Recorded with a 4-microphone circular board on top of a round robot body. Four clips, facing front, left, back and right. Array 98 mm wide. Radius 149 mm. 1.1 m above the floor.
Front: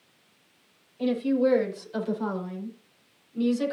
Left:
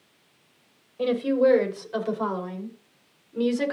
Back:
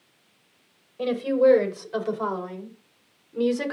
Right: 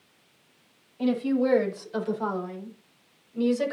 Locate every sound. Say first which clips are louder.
1.0 s a woman speaking: left 3 dB, back 3 dB; 140° left, 7.5 m